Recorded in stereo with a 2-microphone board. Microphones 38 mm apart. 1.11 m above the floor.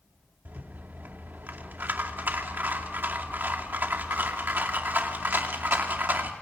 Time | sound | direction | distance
0.5 | a rattle | 55° right (ahead or behind) | 2.5 m